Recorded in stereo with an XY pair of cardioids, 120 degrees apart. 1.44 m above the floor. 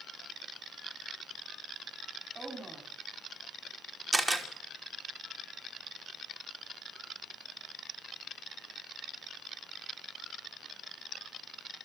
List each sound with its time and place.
2.4 s a woman speaking: 20° right, 4.5 m
4.1 s a camera shutter: 20° right, 2.5 m